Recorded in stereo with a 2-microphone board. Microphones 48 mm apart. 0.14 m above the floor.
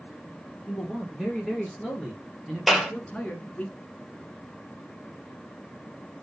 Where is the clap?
Centre (ahead or behind), 3 m.